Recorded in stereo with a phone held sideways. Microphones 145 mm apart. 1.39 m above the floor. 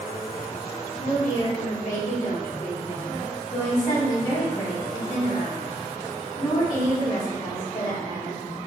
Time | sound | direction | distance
1.0 | a woman speaking | 55° left (ahead or behind) | 1.9 m